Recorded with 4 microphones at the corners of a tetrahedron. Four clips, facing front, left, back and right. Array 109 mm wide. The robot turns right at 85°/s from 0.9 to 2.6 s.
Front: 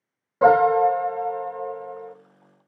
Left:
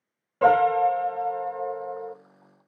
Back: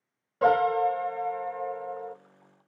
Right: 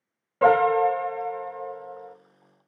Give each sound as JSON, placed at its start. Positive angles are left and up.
{"t": 0.4, "sound": "a piano", "azimuth_deg": 5, "distance_m": 0.5}